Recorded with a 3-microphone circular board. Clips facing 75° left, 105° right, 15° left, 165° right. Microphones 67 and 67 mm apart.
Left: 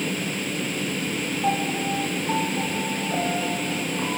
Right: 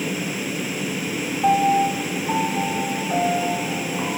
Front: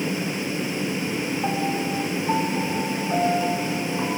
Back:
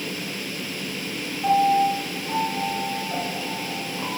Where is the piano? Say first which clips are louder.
Right 9 dB, back 11 dB; 50° right, 10 m.